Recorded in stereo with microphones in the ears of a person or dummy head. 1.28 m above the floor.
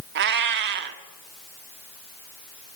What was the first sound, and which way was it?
A cat meowing, 60° right (ahead or behind).